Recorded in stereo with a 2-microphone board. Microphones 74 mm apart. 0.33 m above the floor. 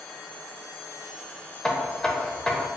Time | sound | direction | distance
1.6 | knocking | 10° left (ahead or behind) | 0.5 m